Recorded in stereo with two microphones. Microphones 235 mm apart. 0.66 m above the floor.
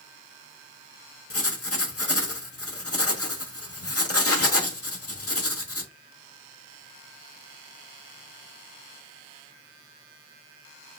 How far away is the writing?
About 1.0 m.